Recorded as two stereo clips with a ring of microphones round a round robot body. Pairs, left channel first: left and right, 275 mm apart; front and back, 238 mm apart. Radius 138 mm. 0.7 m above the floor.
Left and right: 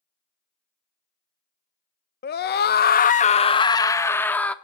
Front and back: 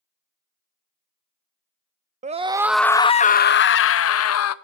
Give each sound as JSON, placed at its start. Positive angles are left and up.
{"t": 2.2, "sound": "a scream", "azimuth_deg": 130, "distance_m": 0.6}